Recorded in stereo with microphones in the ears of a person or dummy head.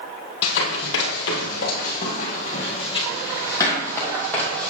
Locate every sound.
0.4 s running footsteps: 60° left (ahead or behind), 2 m; by 4.7 s 10° left (ahead or behind), 3 m